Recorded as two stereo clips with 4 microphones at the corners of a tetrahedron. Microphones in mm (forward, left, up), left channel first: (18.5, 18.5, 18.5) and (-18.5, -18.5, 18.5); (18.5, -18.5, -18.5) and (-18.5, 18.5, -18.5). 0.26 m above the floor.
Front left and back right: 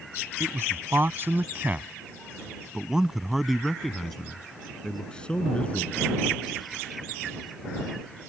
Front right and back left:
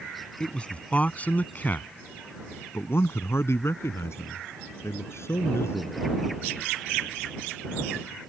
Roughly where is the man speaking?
Right.